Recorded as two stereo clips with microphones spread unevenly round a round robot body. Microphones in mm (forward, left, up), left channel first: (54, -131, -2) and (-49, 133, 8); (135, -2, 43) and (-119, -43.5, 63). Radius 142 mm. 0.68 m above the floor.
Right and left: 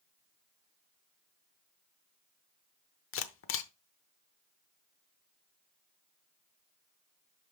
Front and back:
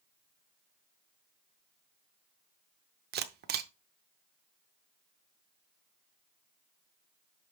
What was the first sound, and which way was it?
A camera shutter, 115° right.